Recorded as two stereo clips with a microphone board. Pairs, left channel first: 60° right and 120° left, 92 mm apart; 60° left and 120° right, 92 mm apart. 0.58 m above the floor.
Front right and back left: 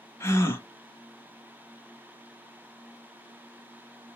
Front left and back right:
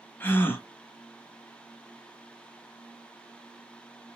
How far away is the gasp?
About 0.7 m.